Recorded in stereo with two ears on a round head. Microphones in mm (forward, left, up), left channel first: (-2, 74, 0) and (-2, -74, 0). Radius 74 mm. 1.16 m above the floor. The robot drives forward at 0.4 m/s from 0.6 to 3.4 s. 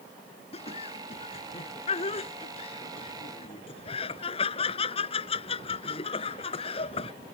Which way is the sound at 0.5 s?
35° left (ahead or behind).